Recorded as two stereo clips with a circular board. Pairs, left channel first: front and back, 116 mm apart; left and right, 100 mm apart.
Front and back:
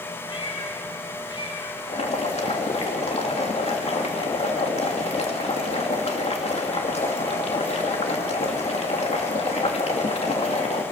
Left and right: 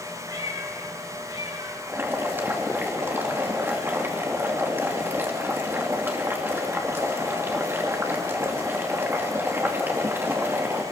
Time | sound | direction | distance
0.3 | a cat meowing | 45° right | 3.5 m
1.9 | boiling | 20° right | 2.5 m